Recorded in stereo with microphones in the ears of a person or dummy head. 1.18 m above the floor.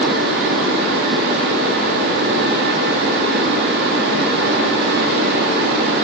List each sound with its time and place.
0.0 s a fan: 60° right (ahead or behind), 0.8 m